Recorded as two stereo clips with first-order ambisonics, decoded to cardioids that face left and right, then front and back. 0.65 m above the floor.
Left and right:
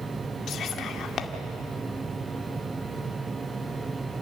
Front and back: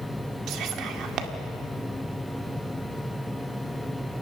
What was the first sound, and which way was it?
Whispering, 145° left.